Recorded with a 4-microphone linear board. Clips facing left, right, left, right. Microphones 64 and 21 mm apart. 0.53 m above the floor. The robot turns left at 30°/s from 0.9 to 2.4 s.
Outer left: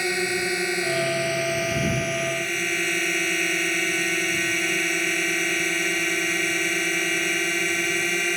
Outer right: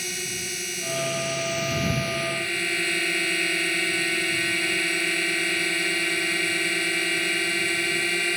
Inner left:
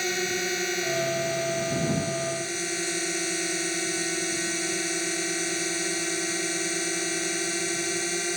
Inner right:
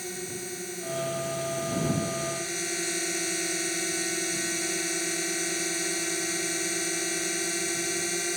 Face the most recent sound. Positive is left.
turn(degrees=10)